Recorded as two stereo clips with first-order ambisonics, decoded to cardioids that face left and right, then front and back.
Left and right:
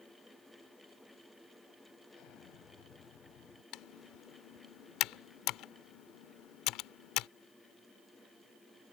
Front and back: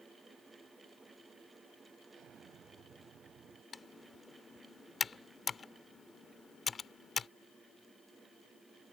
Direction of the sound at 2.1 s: 125° left.